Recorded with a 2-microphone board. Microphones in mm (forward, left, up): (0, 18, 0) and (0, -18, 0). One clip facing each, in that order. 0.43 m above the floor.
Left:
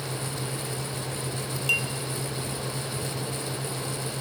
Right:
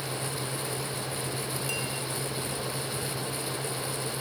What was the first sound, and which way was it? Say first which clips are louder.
A clink: left 12 dB; 55° left (ahead or behind).